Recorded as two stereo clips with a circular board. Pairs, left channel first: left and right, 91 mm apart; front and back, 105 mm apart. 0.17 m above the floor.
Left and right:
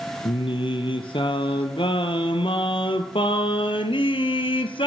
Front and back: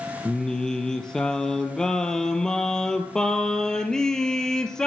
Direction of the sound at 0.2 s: 85° left.